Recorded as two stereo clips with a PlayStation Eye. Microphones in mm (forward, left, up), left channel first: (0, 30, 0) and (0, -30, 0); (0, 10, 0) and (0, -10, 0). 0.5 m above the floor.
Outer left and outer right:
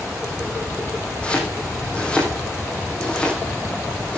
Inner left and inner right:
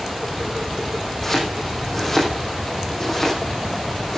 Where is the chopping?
20° left (ahead or behind), 6 m.